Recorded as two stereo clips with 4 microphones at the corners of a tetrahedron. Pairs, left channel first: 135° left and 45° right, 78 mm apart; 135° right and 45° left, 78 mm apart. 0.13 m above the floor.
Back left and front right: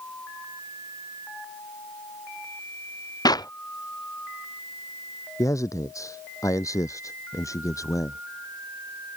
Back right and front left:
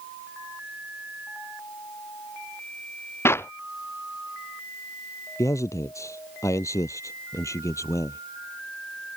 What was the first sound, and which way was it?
A clap, 165° left.